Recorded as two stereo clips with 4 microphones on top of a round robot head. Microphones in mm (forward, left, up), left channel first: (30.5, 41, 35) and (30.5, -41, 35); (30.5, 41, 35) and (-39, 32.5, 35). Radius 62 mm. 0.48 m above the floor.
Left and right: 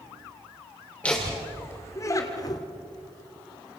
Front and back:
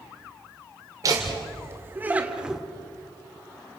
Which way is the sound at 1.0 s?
165° left.